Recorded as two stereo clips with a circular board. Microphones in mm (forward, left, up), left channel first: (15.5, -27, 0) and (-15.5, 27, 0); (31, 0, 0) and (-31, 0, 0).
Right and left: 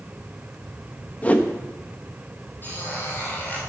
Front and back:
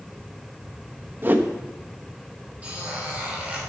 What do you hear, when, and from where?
1.2 s a whoosh: 125° right, 1.1 m
2.6 s a squeak: 115° right, 4.5 m